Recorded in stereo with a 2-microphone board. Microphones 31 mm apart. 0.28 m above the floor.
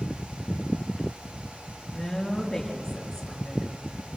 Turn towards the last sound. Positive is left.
turn(degrees=5)  # may be behind; listen again after turning